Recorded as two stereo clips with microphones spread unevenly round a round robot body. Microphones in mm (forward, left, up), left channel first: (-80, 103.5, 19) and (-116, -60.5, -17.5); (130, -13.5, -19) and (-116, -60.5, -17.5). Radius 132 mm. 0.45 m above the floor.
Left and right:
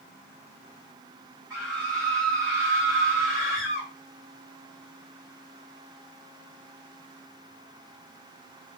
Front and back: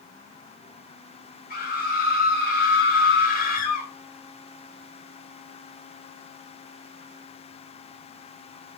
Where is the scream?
35° right, 2.0 m.